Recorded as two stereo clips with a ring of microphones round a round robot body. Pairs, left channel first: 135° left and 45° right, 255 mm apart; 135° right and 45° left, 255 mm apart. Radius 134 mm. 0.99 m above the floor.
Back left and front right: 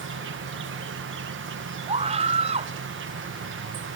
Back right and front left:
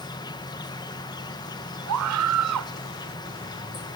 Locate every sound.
0.0 s an insect: 65° right
1.9 s a scream: 25° left